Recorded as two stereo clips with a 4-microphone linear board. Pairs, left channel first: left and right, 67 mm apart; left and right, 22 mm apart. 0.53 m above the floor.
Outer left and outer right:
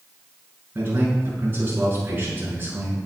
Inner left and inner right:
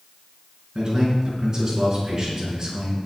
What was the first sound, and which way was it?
A man speaking, 30° right (ahead or behind).